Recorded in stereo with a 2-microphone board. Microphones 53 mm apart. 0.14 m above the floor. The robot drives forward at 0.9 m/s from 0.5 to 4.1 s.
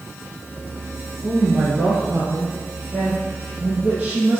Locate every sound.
1.2 s a woman speaking: 30° right (ahead or behind), 2.5 m; by 4.4 s 15° right (ahead or behind), 5 m